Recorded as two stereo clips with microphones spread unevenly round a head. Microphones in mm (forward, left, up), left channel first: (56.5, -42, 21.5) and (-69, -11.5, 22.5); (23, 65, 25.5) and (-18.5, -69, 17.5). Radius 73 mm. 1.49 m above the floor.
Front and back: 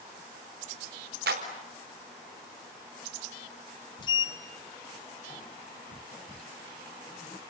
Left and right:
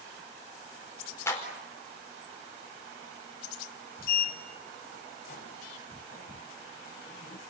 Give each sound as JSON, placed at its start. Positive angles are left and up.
{"t": 1.3, "sound": "a clap", "azimuth_deg": 145, "distance_m": 4.5}
{"t": 4.0, "sound": "a sliding door", "azimuth_deg": 45, "distance_m": 1.5}